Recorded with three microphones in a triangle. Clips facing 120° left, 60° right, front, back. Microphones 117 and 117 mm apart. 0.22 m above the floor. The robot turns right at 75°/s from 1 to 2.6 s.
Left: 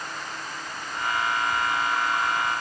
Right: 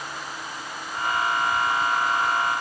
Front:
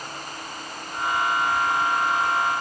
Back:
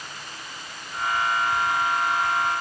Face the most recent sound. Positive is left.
No sound to turn to.